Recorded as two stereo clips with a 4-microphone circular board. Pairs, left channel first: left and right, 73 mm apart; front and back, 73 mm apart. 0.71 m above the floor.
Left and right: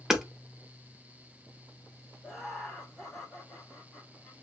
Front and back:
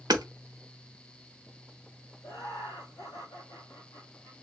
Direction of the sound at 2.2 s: Straight ahead.